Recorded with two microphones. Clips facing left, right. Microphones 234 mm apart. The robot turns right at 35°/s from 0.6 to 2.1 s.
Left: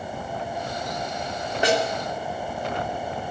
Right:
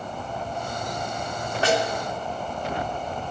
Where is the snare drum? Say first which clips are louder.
Left 1 dB; 15° left (ahead or behind), 2 m; by 1.8 s 10° left (ahead or behind), 2 m.